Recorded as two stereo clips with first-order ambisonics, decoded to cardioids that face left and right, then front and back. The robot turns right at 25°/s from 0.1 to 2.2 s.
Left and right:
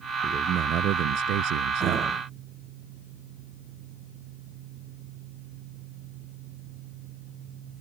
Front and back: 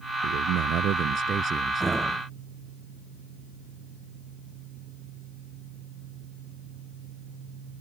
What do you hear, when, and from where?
0.2 s a man speaking: 150° right; by 2.2 s 100° right